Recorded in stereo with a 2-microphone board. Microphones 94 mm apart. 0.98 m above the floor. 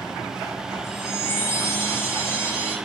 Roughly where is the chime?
Left.